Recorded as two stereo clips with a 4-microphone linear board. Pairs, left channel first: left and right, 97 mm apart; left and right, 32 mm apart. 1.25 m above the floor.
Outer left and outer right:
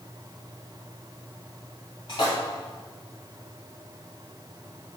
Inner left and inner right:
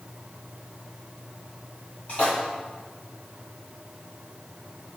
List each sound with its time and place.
2.1 s a splash: 50° left (ahead or behind), 1.9 m